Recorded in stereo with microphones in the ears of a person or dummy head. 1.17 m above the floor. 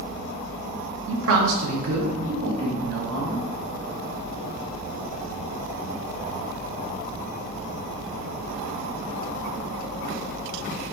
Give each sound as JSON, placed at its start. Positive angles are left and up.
{"t": 1.1, "sound": "a man speaking", "side_deg": -70, "distance_m": 0.8}